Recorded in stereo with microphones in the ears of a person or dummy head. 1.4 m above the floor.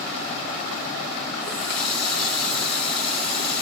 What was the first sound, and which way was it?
A running tap, 10° left (ahead or behind).